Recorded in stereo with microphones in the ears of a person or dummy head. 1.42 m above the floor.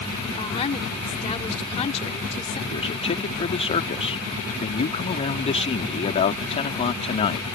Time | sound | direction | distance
0.4 | a woman speaking | 30° left (ahead or behind) | ?
2.7 | a man speaking | 35° left (ahead or behind) | ?